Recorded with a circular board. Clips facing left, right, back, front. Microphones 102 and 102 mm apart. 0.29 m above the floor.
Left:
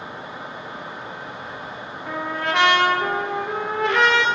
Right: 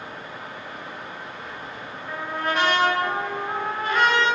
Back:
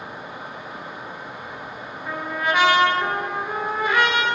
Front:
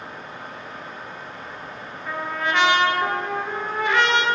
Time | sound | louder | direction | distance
2.1 | a trumpet | left 2 dB, back 1 dB | 100° left | 1.2 m